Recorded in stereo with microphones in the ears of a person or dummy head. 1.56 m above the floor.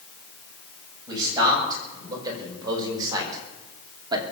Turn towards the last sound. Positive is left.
turn(degrees=-30)  # may be behind; listen again after turning